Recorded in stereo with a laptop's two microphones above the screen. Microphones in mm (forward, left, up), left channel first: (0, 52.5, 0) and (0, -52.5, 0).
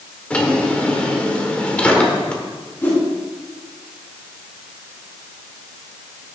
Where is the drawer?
10° left (ahead or behind), 1.8 m.